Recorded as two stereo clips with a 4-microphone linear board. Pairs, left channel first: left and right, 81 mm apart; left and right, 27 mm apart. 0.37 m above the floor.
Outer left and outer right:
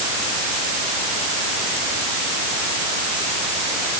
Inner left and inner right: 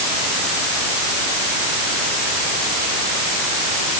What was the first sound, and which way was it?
Only background noise.